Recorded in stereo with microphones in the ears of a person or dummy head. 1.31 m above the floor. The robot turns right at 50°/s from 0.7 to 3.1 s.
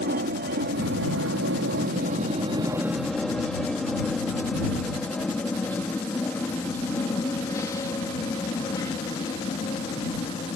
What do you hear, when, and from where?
0.0 s an aircraft: 45° right (ahead or behind); by 10.6 s 25° left (ahead or behind)